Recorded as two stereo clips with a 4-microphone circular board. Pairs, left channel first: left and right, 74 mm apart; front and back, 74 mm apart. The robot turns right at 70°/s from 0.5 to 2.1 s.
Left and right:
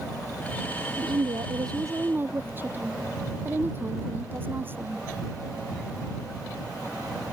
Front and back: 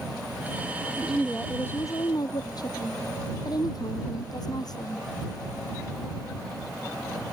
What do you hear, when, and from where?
1.0 s a woman speaking: 110° right; by 5.1 s 30° right